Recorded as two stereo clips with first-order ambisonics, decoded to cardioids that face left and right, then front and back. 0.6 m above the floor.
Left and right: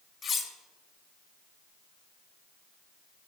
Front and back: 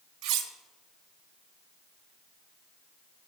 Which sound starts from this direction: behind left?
Cutlery clinking, at 0.2 s.